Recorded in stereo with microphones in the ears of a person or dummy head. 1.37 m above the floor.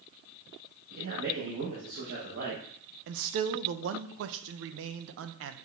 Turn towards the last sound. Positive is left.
turn(degrees=-65)  # may be behind; listen again after turning